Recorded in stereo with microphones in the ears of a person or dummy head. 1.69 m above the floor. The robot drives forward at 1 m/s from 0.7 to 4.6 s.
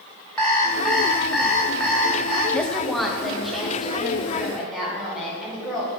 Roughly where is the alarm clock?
Centre.